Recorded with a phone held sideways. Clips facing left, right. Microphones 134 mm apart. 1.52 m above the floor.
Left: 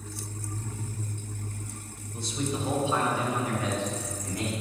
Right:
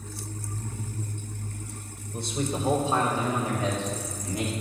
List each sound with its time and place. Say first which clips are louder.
2.1 s a man speaking: right 2 dB; 55° right (ahead or behind), 1.8 m; by 4.5 s 20° right (ahead or behind), 3.5 m